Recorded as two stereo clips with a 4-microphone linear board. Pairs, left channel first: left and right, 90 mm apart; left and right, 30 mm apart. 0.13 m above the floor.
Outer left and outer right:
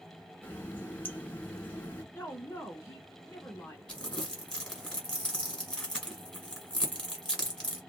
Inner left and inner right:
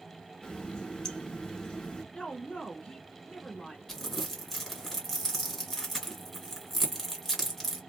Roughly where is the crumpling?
Centre.